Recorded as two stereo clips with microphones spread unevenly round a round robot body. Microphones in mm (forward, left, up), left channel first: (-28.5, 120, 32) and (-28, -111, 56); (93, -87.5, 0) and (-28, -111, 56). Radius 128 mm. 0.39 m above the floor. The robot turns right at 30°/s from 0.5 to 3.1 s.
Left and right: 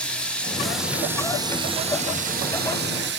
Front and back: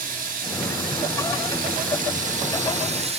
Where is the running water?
165° left, 0.8 m; by 3.2 s 115° right, 0.8 m.